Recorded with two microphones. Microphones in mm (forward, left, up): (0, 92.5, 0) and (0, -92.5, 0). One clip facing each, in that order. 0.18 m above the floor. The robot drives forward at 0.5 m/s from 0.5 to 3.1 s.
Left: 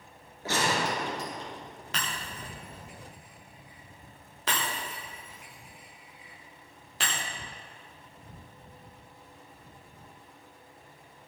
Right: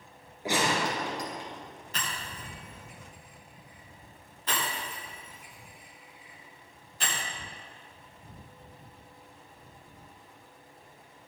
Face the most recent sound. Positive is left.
turn(degrees=85)